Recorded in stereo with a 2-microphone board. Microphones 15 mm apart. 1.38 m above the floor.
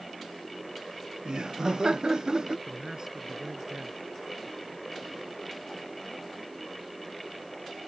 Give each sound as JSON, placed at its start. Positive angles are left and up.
{"t": 1.2, "sound": "laughter", "side_deg": -55}
{"t": 2.7, "sound": "a man speaking", "side_deg": -50}